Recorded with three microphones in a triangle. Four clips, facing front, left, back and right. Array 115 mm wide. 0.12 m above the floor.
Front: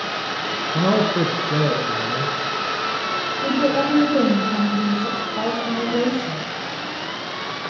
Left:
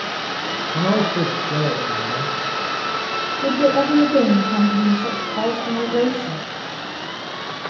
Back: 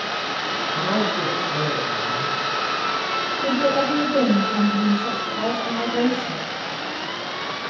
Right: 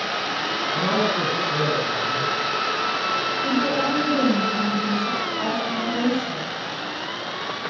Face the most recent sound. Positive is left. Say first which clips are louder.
# left 7 dB, front 1 dB
turn(degrees=75)